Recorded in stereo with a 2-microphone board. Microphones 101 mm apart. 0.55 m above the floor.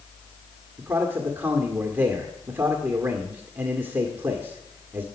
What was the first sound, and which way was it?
A man speaking, 20° right (ahead or behind).